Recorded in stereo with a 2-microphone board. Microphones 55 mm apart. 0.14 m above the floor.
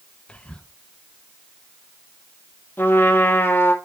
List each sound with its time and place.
0.3 s whispering: 20° left (ahead or behind), 1.1 m
2.8 s a trumpet: 40° left (ahead or behind), 2 m